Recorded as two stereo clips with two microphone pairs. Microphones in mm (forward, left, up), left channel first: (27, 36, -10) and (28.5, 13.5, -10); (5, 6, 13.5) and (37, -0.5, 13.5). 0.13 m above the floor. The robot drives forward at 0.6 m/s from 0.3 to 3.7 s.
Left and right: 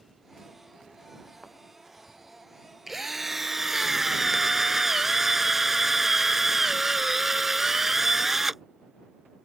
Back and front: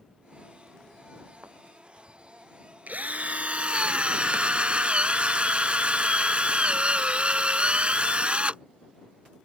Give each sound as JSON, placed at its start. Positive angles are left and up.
{"t": 1.4, "sound": "a thud", "azimuth_deg": 10}
{"t": 2.9, "sound": "a drill", "azimuth_deg": -10}